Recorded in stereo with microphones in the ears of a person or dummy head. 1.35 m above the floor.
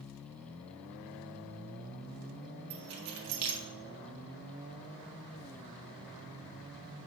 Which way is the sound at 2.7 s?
80° right.